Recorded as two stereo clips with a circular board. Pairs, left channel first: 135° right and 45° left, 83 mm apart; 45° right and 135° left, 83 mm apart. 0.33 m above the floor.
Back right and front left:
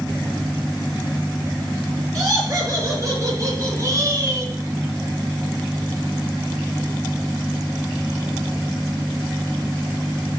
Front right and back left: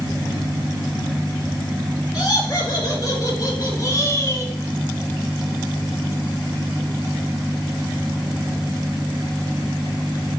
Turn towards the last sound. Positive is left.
turn(degrees=0)